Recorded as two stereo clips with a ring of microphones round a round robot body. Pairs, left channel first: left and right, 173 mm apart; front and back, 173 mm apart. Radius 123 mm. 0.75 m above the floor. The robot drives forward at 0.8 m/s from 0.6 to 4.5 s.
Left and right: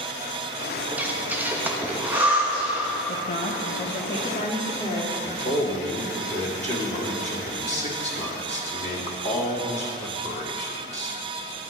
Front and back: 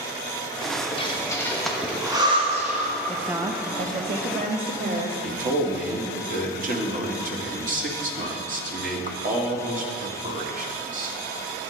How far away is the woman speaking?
About 0.6 m.